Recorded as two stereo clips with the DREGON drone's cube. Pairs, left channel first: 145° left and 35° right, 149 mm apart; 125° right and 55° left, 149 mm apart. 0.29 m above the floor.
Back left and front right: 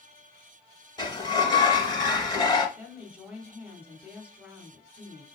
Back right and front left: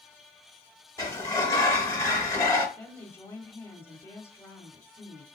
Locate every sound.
1.0 s a sliding door: straight behind, 0.7 m
2.8 s a woman speaking: 95° right, 0.9 m